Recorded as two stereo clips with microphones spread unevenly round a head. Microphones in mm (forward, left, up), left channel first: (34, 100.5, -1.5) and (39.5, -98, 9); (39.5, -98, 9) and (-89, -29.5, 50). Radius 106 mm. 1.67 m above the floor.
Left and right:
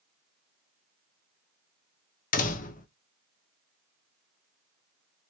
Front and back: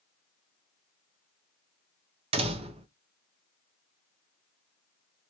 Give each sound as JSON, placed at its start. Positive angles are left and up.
{"t": 2.3, "sound": "a door slam", "azimuth_deg": 135, "distance_m": 0.6}